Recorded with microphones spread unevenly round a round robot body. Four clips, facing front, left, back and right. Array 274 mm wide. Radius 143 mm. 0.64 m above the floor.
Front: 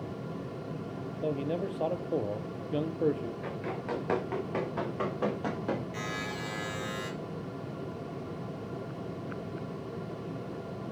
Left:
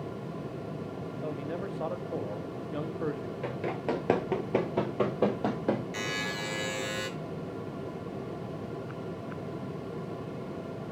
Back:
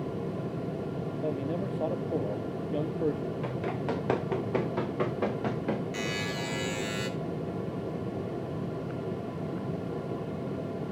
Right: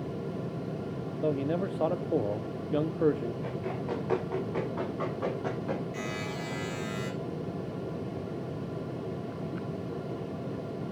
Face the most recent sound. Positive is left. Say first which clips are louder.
# even, back 3 dB
turn(degrees=135)